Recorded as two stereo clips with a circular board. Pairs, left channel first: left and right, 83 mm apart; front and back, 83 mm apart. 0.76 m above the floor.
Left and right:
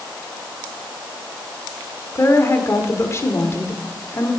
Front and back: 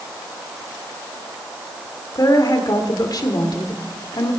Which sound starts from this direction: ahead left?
A woman speaking, at 2.1 s.